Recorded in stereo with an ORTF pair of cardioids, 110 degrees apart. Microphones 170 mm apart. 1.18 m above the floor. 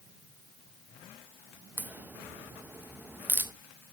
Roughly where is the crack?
Ahead.